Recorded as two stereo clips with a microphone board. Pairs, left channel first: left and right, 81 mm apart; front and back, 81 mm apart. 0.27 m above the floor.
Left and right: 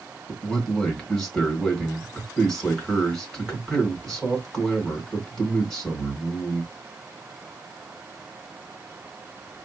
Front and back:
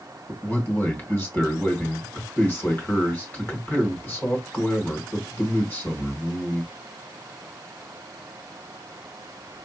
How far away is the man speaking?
About 1.7 m.